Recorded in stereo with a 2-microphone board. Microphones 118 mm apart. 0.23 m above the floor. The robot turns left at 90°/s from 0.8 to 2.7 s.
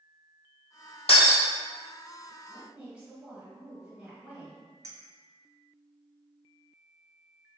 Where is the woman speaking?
5° right (ahead or behind), 1.3 m; by 4.6 s 10° right (ahead or behind), 1.3 m.